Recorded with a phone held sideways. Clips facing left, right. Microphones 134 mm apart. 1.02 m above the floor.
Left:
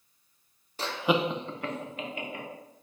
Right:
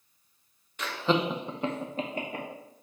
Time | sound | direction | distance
0.8 | laughter | 35° left (ahead or behind) | 0.5 m